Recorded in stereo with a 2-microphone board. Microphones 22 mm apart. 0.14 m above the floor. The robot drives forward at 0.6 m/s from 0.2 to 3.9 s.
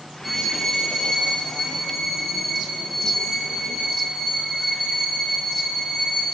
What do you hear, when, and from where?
0.2 s a violin: centre (ahead or behind), 1.2 m